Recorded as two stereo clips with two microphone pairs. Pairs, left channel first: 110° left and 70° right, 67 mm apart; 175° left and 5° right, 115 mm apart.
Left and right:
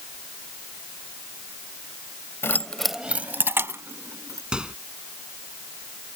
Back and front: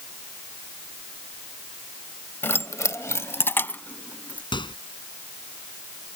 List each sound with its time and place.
2.4 s keys jangling: 120° left; by 4.4 s 110° right
4.5 s a microwave: 145° right